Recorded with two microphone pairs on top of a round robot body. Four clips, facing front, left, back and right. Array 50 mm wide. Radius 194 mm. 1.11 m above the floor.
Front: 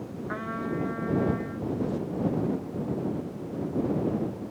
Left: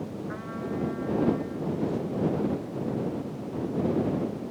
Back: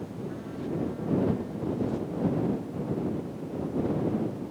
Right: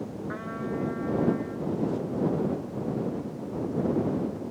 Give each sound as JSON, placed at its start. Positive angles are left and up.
{"t": 0.3, "sound": "a trumpet", "azimuth_deg": -10}